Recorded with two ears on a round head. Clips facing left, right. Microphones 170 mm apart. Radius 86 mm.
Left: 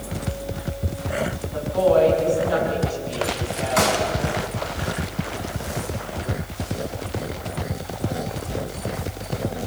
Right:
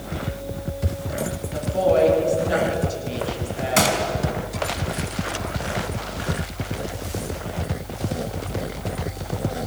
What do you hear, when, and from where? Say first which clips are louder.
1.5 s a woman speaking: left 1 dB; 25° right (ahead or behind), 7.5 m
3.8 s a gunshot: even; 35° right (ahead or behind), 4 m